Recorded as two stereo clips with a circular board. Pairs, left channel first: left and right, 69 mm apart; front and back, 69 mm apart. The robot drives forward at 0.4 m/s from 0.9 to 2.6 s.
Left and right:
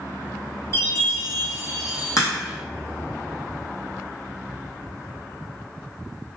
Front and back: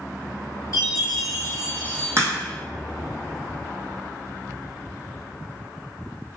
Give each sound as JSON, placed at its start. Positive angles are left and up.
{"t": 0.7, "sound": "a chime", "azimuth_deg": 35, "distance_m": 1.2}
{"t": 2.2, "sound": "a crack", "azimuth_deg": 130, "distance_m": 1.3}